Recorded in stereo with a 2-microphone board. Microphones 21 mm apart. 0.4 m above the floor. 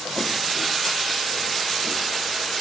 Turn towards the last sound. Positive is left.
No sound to turn to.